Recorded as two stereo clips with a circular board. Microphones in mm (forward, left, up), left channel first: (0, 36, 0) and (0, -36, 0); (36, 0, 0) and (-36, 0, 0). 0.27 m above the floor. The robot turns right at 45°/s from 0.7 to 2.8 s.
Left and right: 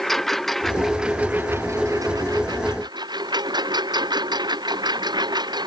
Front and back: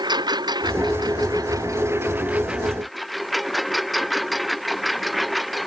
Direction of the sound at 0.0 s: 175° left.